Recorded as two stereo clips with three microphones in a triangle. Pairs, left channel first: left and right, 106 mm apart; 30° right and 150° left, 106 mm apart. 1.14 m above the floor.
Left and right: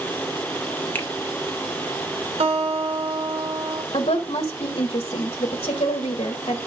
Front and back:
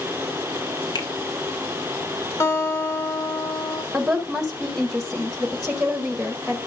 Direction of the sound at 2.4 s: 90° right.